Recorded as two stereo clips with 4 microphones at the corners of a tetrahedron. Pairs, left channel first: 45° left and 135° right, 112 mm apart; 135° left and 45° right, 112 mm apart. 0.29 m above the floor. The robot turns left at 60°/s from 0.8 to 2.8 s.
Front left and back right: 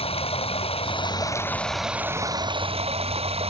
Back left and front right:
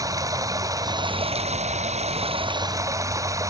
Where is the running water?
15° left; by 3.5 s 105° right.